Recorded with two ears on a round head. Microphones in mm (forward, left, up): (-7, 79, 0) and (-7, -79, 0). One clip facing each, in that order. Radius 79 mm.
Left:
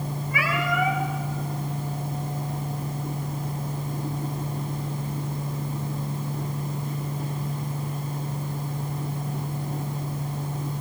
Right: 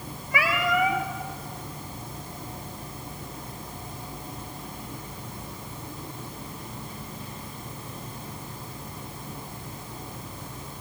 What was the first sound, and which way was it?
A cat meowing, 60° right (ahead or behind).